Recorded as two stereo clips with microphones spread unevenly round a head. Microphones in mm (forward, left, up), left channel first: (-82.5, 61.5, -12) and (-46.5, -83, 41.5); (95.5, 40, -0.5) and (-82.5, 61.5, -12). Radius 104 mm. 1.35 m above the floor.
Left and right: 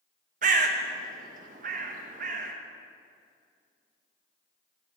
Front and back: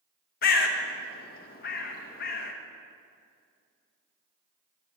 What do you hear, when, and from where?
0.4 s a bird: 45° right, 0.9 m